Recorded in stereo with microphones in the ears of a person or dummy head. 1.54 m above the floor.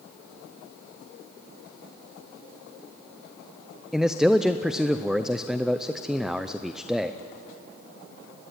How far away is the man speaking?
About 0.6 m.